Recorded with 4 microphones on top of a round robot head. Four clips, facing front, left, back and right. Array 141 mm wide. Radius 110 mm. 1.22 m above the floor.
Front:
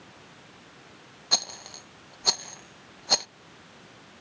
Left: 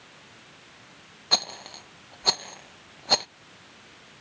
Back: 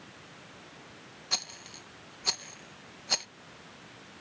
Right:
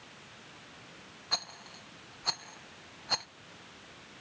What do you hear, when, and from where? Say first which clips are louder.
1.3 s a rattle: left 9 dB, front 7 dB; 70° left